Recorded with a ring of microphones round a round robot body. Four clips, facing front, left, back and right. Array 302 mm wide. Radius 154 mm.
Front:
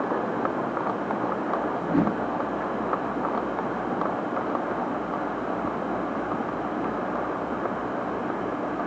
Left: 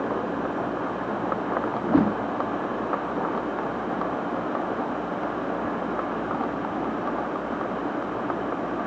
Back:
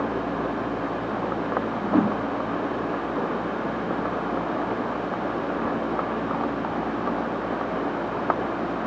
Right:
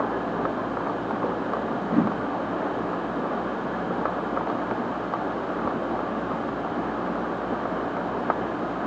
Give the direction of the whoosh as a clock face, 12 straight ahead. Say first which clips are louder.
Left 3 dB, back 4 dB; 9 o'clock.